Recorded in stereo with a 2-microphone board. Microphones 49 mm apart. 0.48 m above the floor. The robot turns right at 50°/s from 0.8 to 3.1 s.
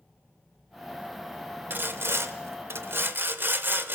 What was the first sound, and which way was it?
Sawing, 130° right.